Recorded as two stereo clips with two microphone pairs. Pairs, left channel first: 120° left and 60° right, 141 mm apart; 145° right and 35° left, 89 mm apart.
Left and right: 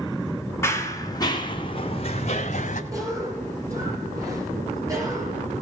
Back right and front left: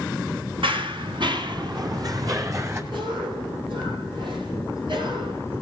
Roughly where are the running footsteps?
Ahead left.